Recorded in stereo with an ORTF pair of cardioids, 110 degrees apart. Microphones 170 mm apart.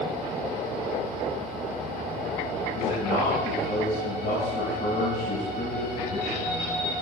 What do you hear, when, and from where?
2.7 s a man speaking: 60° left, 8.5 m